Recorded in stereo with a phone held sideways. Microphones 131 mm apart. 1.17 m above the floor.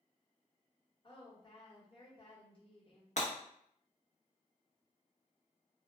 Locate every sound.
1.0 s a woman speaking: 40° left (ahead or behind), 1.0 m
3.2 s breaking glass: 60° left (ahead or behind), 0.8 m